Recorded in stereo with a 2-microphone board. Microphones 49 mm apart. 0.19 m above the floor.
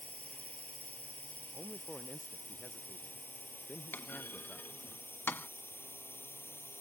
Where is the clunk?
45° left (ahead or behind).